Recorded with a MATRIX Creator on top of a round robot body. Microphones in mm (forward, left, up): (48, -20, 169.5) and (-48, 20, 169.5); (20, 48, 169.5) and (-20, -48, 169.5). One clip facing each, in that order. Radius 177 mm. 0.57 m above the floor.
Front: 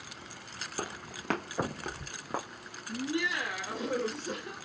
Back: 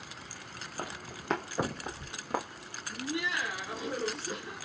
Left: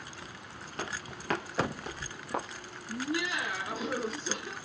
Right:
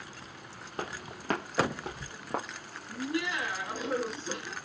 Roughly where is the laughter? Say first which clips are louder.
Front 2 dB, even; ahead.